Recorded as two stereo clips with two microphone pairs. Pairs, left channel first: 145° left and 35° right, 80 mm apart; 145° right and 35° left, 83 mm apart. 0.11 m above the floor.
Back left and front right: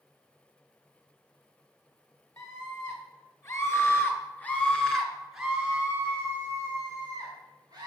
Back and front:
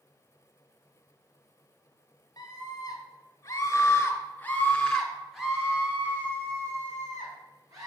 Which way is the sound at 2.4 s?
Straight behind.